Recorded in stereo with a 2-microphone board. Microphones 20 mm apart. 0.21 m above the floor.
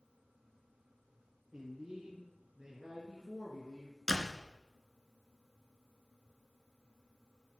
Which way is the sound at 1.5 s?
20° right (ahead or behind).